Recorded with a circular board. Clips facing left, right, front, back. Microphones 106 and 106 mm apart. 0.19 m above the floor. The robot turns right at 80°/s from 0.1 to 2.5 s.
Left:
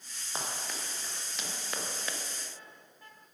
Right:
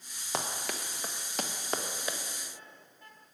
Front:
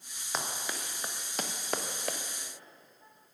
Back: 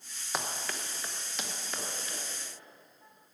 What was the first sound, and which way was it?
Running footsteps, 95° right.